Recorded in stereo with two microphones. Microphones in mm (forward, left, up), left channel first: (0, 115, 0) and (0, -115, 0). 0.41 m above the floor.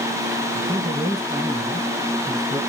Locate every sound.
0.5 s a man speaking: centre (ahead or behind), 2 m